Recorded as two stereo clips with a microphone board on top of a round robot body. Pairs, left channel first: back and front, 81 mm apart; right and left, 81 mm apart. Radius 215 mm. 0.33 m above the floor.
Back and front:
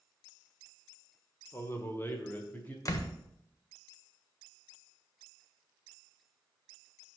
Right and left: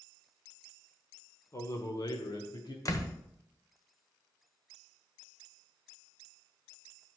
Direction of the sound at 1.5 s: 130° right.